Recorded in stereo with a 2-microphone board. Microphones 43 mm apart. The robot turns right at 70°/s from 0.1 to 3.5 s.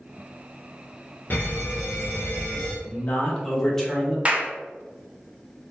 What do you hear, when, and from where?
1.3 s an alarm: 50° left, 0.8 m; by 2.8 s 150° left, 0.8 m
2.9 s a man speaking: 125° left, 1.0 m; by 4.2 s 170° left, 1.0 m
4.2 s a clap: 30° right (ahead or behind), 0.5 m